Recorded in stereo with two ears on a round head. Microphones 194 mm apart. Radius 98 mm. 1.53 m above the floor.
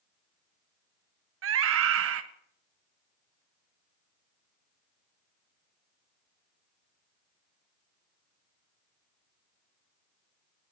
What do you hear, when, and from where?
1.4 s a scream: 70° right (ahead or behind), 1.4 m